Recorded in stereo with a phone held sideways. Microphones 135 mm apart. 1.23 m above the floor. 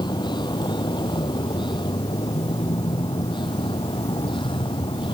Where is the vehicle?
35° left (ahead or behind).